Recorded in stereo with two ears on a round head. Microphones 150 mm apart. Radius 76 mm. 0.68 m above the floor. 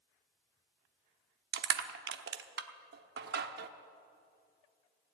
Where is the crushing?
70° right (ahead or behind), 0.9 m.